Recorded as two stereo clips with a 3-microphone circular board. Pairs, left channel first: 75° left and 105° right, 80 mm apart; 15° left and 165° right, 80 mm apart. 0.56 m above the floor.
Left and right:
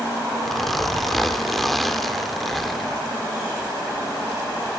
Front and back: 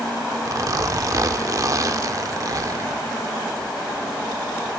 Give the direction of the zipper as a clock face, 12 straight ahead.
7 o'clock.